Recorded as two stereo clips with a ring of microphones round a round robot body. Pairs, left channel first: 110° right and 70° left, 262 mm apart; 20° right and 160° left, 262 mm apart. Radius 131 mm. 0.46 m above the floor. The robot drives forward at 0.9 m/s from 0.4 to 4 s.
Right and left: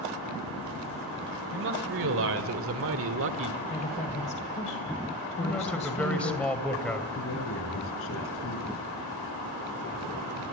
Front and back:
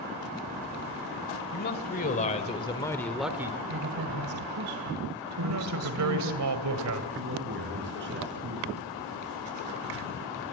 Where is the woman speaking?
175° right, 1.6 m.